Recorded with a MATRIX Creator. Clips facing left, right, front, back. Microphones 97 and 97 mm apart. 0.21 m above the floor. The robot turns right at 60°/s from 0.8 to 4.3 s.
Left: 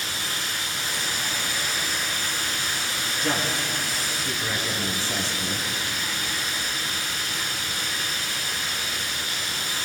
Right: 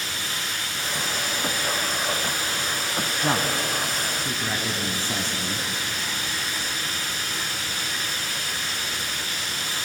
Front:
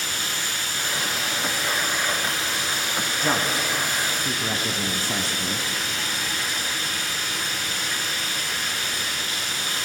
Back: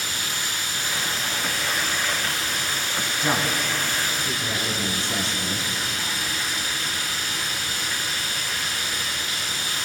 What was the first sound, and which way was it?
Running water, 105° left.